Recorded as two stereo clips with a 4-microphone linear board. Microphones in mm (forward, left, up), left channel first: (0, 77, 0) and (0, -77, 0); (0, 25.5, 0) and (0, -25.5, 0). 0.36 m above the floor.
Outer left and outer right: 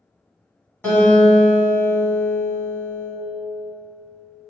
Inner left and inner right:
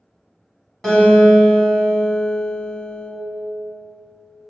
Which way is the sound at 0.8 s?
10° left (ahead or behind).